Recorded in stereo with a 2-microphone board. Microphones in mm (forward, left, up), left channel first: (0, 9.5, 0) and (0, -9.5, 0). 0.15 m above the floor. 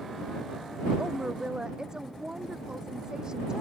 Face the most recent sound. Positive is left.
turn(degrees=-40)  # may be behind; listen again after turning